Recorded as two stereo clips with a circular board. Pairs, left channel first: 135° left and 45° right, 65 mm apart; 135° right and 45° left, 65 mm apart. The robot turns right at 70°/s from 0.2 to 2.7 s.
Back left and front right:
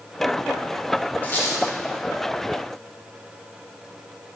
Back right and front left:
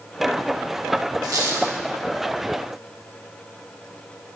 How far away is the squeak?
About 1.3 m.